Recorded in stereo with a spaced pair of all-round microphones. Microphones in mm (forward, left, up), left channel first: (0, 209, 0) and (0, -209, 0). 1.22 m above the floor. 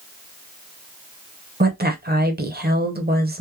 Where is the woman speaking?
25° right (ahead or behind), 0.6 m.